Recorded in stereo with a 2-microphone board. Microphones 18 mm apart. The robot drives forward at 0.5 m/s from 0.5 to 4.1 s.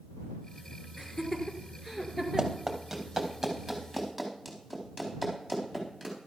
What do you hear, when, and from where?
1.0 s laughter: 10° left (ahead or behind), 1.6 m; by 2.6 s 5° left (ahead or behind), 2.5 m
2.4 s running footsteps: 30° right (ahead or behind), 2 m; by 6.2 s 10° right (ahead or behind), 5.5 m